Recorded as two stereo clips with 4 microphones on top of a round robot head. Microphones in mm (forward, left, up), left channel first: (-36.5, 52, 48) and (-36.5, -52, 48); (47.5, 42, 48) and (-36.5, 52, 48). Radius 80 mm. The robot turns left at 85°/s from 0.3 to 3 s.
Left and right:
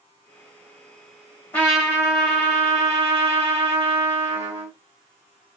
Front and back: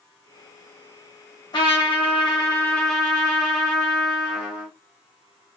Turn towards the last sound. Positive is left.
turn(degrees=-110)